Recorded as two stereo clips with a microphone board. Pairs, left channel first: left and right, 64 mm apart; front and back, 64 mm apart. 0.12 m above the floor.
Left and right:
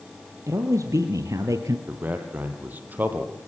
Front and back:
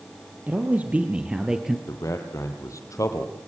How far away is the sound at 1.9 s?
About 3 m.